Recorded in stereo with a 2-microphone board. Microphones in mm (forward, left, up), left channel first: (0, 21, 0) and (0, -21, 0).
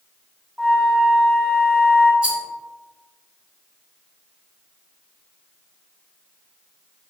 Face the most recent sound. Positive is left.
turn(degrees=-25)  # may be behind; listen again after turning